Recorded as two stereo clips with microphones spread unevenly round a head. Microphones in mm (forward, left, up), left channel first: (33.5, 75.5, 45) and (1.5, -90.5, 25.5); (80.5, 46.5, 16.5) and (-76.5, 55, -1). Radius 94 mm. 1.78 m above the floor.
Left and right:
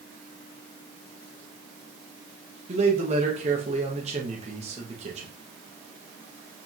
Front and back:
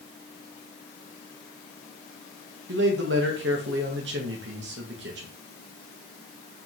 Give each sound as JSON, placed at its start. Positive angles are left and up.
{"t": 2.7, "sound": "a man speaking", "azimuth_deg": -155, "distance_m": 3.0}